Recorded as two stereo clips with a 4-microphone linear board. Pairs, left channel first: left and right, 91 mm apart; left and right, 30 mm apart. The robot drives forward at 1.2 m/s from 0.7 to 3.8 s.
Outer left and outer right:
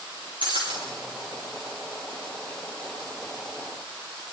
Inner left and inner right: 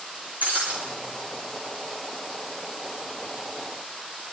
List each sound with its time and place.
0.4 s breaking glass: 60° right (ahead or behind), 9 m